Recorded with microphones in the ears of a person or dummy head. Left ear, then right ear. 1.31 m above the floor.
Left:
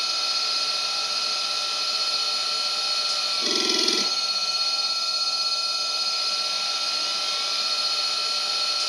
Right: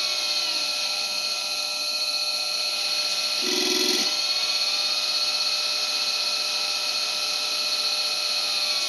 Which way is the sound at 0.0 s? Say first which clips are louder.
Even; 50° left (ahead or behind).